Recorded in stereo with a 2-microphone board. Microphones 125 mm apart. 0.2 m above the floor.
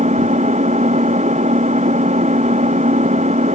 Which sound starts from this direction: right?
An engine running, at 0.0 s.